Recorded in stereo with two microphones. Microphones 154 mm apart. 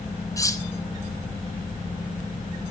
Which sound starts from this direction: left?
Cutlery clinking, at 0.4 s.